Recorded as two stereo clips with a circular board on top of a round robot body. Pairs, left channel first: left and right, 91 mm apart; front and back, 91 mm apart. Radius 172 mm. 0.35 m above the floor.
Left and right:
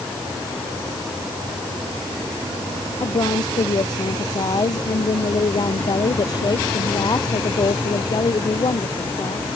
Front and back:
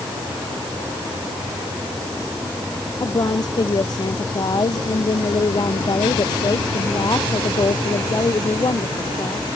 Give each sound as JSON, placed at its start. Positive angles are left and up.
{"t": 3.0, "sound": "a woman speaking", "azimuth_deg": 45}